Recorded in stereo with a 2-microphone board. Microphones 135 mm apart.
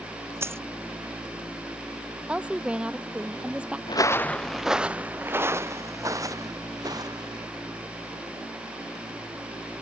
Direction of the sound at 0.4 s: 20° right (ahead or behind).